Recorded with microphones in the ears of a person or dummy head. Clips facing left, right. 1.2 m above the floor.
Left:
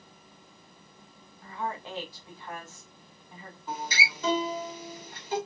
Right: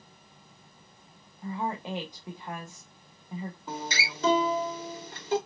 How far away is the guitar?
About 2.5 m.